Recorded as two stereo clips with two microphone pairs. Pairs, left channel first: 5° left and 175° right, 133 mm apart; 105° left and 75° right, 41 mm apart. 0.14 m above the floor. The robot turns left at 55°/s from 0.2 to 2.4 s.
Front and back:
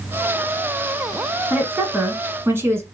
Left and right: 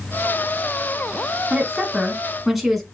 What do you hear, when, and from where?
1.5 s a woman speaking: 115° right, 1.1 m; by 2.8 s 160° right, 1.1 m